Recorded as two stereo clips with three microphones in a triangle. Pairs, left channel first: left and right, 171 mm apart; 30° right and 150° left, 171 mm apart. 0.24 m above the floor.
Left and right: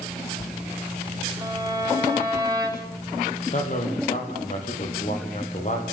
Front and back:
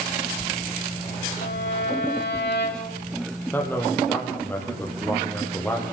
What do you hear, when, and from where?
1.4 s a violin: 20° right, 6 m
3.5 s a man speaking: 50° left, 7 m